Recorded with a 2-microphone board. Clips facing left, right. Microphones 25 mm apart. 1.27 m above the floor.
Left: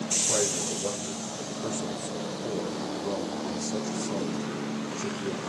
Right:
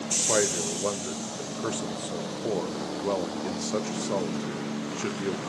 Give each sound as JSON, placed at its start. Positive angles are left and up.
{"t": 0.3, "sound": "a man speaking", "side_deg": -80, "distance_m": 0.9}